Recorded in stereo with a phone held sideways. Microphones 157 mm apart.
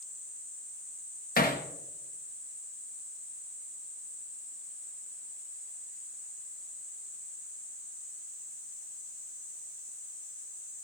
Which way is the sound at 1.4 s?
70° left (ahead or behind).